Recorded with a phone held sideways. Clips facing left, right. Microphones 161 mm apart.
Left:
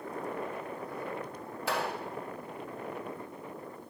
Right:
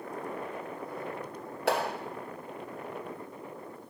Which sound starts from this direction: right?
A clap, at 1.7 s.